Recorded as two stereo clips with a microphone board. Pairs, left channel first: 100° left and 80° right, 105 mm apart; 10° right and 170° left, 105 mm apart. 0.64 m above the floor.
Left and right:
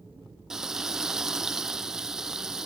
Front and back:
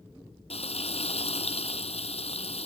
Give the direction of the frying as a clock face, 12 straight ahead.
12 o'clock.